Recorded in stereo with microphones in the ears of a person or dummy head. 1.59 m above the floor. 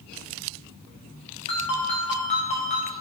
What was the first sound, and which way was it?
A ringtone, 30° left (ahead or behind).